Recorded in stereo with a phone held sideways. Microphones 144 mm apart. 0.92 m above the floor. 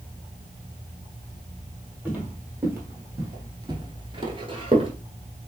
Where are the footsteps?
10° right (ahead or behind), 1.7 m; by 4.9 s 35° right (ahead or behind), 1.1 m.